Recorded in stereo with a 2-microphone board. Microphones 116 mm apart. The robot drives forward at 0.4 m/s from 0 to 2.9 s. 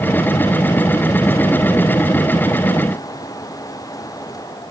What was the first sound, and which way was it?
Only background noise.